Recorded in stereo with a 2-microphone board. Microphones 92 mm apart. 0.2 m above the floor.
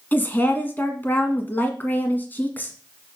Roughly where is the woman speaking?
Left.